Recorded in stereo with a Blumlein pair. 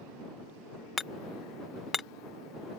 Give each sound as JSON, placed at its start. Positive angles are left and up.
{"t": 1.0, "sound": "hammering", "azimuth_deg": 15}